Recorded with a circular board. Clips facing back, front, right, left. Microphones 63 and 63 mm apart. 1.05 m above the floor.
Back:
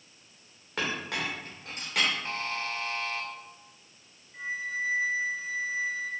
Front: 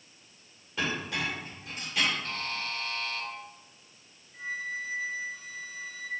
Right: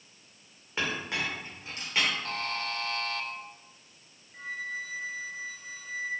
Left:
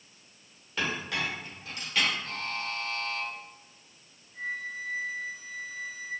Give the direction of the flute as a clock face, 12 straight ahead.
4 o'clock.